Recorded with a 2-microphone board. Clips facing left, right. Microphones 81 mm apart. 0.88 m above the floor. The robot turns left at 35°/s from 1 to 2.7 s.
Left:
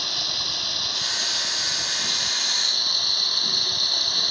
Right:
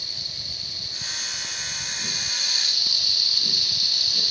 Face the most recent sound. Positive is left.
turn(degrees=50)